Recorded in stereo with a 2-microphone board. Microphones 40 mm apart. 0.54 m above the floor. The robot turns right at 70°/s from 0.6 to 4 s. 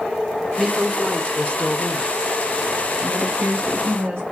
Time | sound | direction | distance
0.6 | a woman speaking | 20° right | 1.4 m
3.0 | a woman speaking | 150° right | 4 m